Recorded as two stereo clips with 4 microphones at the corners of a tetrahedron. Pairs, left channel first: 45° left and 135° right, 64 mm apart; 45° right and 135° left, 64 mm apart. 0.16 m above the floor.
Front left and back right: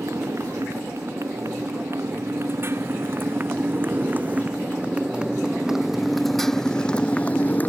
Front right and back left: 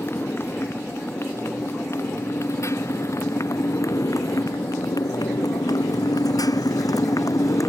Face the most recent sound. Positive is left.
turn(degrees=-15)